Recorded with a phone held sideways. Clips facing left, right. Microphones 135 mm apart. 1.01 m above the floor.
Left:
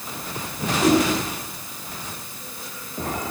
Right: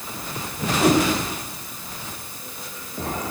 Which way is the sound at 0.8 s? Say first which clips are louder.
Even; 55° right (ahead or behind).